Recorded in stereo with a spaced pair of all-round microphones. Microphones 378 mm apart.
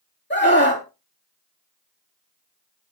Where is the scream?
30° left (ahead or behind), 3 m.